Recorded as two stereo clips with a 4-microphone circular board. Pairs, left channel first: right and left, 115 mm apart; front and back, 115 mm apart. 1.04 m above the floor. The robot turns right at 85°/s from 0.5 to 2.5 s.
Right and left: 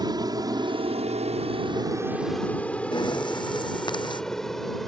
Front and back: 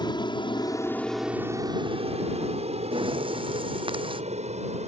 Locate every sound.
0.0 s an aircraft: 45° left; by 4.9 s straight behind
2.9 s breathing: 140° right